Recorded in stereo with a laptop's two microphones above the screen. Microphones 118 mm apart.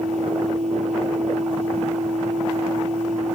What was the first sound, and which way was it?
A machine running, 75° right (ahead or behind).